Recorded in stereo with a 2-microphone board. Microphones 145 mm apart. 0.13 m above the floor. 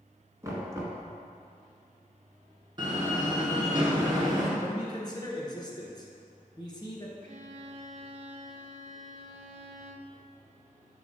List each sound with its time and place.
0.4 s knocking: 20° right (ahead or behind), 1.2 m
2.8 s a door slam: 30° right (ahead or behind), 1.4 m
4.6 s a man speaking: 30° left (ahead or behind), 1.2 m
7.2 s a violin: 55° right (ahead or behind), 0.6 m